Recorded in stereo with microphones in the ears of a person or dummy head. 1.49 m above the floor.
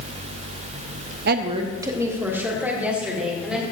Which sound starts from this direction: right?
A woman speaking, at 1.3 s.